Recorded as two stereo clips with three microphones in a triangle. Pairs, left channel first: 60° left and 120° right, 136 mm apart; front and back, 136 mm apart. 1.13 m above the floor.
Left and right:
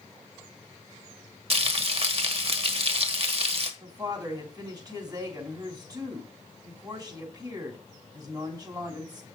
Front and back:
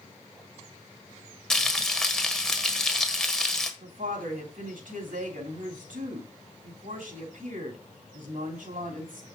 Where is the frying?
85° right, 1.4 m.